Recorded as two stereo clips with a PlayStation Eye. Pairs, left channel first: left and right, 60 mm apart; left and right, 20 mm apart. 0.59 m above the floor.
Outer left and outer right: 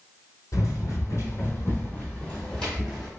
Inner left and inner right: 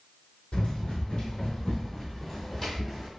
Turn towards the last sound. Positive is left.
turn(degrees=0)  # may be behind; listen again after turning